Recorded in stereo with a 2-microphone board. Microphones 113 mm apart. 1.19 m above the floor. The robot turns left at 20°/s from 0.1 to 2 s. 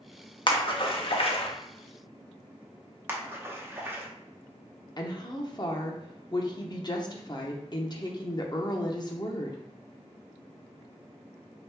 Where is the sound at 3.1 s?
20° right (ahead or behind), 0.8 m.